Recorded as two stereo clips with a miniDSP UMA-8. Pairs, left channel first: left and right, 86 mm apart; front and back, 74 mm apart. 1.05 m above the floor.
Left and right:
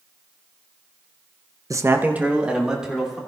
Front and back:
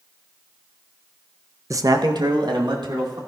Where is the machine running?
No machine running in this recording.